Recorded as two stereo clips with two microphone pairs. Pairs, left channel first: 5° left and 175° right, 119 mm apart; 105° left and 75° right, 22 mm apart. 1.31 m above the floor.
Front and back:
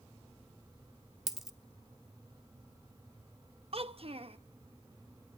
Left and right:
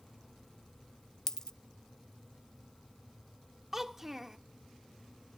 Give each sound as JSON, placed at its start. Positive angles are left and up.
{"t": 1.3, "sound": "a dropped coin", "azimuth_deg": 95, "distance_m": 0.9}
{"t": 3.7, "sound": "a child speaking", "azimuth_deg": -145, "distance_m": 1.0}